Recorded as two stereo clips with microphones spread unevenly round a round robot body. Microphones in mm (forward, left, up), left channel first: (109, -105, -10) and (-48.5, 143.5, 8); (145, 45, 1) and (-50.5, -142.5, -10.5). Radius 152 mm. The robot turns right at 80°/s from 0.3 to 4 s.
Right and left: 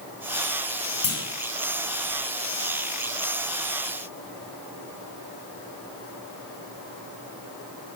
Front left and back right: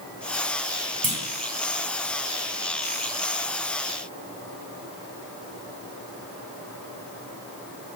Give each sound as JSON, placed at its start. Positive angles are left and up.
{"t": 1.0, "sound": "a clunk", "azimuth_deg": -85, "distance_m": 2.5}